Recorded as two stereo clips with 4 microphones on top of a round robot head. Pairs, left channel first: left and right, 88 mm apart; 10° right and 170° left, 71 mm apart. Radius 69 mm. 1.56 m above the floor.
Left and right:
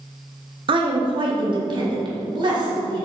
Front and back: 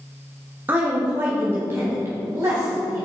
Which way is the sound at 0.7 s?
115° right.